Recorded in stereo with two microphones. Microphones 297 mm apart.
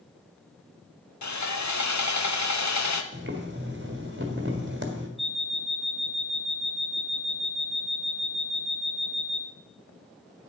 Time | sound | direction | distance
1.2 | sawing | 70° left (ahead or behind) | 0.8 m
3.1 | boiling | 40° right (ahead or behind) | 1.6 m
5.2 | an alarm clock | centre (ahead or behind) | 1.1 m